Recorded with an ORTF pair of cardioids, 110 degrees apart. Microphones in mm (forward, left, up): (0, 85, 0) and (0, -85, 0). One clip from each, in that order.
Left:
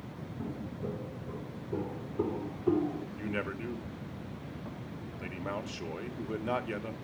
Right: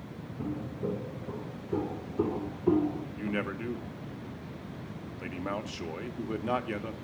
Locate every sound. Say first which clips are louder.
0.4 s footsteps: right 5 dB; 20° right, 4 m
3.2 s a man speaking: right 2 dB; 10° right, 2.5 m